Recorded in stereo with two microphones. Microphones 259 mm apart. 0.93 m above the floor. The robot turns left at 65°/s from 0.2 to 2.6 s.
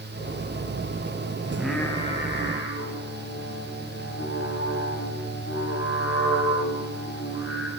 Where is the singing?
165° right, 7 m; by 7.7 s 120° left, 7 m.